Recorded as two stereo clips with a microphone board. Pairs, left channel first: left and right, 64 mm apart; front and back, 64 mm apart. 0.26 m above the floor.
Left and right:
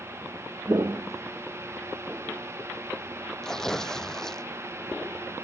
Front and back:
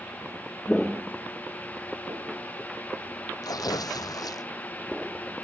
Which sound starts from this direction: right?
Footsteps, at 0.7 s.